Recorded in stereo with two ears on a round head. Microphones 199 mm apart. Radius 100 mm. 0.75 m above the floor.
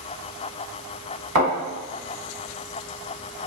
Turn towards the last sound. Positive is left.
turn(degrees=-60)  # may be behind; listen again after turning